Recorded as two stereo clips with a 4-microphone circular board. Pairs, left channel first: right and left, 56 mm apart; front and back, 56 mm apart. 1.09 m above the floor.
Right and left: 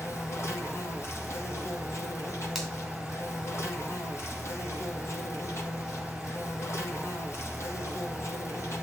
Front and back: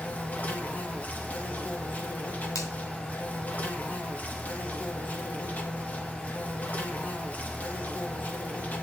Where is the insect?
60° right, 1.6 m.